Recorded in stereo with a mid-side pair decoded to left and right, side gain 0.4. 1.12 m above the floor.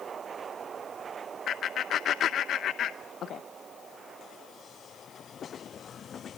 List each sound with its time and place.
1.5 s laughter: 65° left, 0.7 m